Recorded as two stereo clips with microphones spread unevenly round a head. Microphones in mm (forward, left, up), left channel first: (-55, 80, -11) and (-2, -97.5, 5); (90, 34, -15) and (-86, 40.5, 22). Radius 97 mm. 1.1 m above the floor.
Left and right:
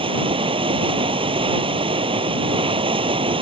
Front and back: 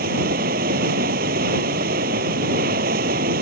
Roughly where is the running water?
Behind right.